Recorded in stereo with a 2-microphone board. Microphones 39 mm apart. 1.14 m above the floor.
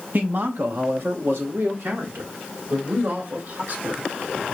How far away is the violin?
I don't hear a violin.